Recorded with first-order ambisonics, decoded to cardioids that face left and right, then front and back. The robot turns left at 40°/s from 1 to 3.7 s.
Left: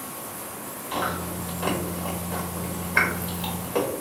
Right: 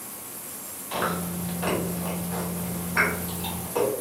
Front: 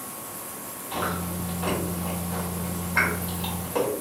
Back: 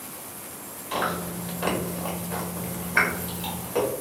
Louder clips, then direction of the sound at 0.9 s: Even, back 2 dB; 160° right.